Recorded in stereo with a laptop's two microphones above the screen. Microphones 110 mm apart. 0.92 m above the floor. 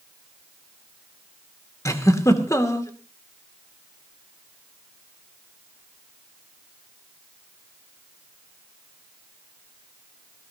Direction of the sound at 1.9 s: 30° left (ahead or behind).